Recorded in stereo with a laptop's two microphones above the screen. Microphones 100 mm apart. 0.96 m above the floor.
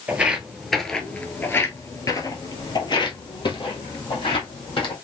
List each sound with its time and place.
0.1 s footsteps: 15° right (ahead or behind), 1.1 m; by 4.9 s 60° left (ahead or behind), 2 m